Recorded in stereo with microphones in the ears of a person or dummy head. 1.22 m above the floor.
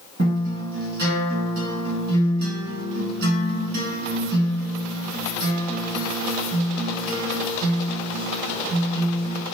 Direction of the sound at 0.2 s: 45° right (ahead or behind).